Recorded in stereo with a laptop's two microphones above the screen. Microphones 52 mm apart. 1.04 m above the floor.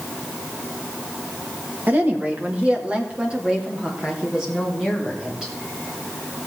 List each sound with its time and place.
1.9 s a woman speaking: 45° right (ahead or behind), 1.8 m; by 5.5 s 10° right (ahead or behind), 4 m